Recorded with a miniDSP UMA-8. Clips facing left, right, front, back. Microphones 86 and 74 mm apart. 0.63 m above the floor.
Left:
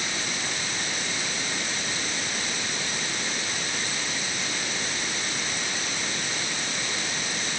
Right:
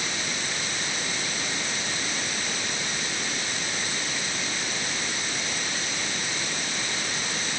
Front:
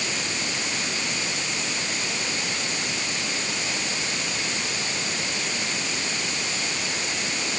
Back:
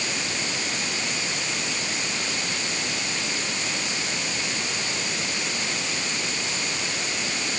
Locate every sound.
Only background noise.